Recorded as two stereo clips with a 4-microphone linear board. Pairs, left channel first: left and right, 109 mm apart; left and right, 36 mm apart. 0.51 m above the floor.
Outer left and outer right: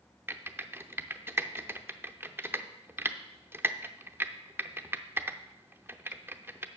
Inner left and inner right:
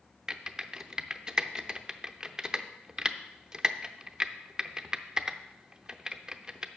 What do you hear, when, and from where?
0.3 s typing on a keyboard: 20° right (ahead or behind), 0.6 m